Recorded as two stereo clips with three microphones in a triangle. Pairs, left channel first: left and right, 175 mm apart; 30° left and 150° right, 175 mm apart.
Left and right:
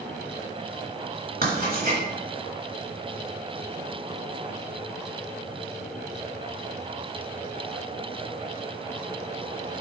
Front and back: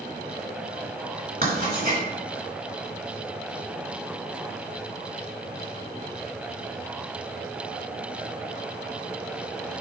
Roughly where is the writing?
Behind right.